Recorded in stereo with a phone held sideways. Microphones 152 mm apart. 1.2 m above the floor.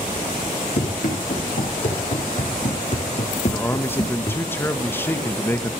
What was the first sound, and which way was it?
Running footsteps, 65° left (ahead or behind).